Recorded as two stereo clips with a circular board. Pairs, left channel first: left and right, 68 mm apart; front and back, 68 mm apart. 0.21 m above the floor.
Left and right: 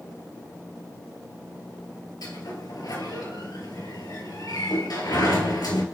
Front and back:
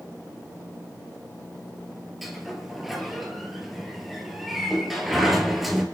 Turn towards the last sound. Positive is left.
turn(degrees=90)